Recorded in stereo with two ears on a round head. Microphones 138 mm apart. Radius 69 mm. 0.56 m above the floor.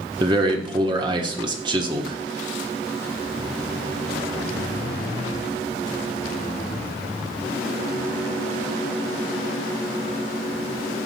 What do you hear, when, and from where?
0.2 s a man speaking: 30° right (ahead or behind), 0.9 m